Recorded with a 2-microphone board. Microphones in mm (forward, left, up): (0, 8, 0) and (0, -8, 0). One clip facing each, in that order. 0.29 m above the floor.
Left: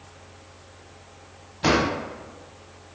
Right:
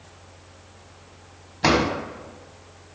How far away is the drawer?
About 1.0 m.